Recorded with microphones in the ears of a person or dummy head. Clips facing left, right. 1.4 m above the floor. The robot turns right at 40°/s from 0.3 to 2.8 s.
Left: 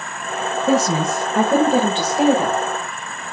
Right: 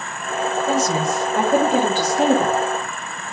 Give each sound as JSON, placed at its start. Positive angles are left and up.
{"t": 0.7, "sound": "a woman speaking", "azimuth_deg": 105, "distance_m": 1.7}